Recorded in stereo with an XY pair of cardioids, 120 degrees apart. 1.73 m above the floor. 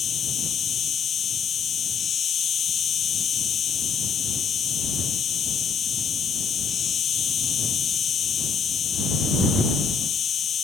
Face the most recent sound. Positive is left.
turn(degrees=45)